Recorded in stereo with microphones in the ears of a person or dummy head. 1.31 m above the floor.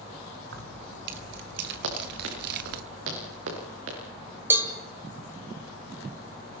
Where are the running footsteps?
80° right, 8 m.